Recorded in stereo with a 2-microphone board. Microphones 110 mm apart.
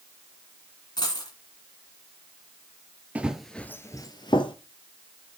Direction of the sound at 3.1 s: 10° right (ahead or behind).